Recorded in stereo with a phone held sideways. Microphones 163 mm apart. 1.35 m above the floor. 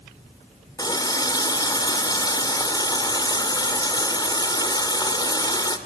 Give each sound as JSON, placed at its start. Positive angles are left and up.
{"t": 0.8, "sound": "a running tap", "side_deg": 25, "distance_m": 2.5}